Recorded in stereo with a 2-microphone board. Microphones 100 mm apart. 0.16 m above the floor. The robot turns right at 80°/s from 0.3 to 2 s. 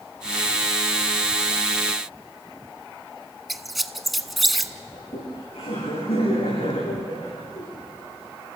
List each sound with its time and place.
3.5 s a squeak: centre (ahead or behind), 0.8 m
4.9 s laughter: 80° left, 9.5 m